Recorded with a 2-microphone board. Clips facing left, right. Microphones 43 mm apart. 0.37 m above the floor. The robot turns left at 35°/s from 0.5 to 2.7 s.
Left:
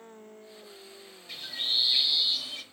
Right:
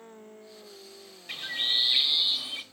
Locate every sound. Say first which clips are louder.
1.3 s a bird: right 3 dB; 110° right, 0.6 m; by 2.6 s 155° right, 0.6 m